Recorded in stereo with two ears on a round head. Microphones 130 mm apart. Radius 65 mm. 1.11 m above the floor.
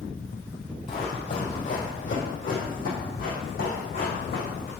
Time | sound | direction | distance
0.9 | running footsteps | 40° left (ahead or behind) | 1.9 m